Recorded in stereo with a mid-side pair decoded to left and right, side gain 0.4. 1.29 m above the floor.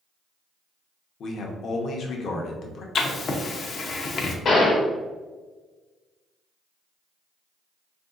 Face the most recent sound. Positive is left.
turn(degrees=60)